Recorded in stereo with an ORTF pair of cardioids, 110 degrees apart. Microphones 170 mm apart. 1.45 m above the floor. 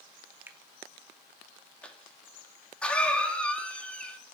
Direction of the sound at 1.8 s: 5° left.